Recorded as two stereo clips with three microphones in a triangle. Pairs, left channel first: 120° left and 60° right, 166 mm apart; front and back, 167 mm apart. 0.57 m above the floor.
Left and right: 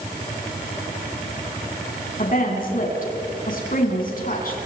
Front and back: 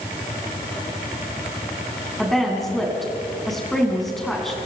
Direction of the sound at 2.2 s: 90° left.